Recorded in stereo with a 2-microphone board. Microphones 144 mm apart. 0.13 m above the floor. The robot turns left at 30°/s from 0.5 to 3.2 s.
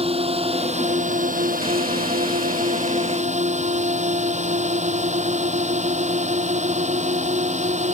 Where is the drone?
45° right; by 8.0 s 125° right.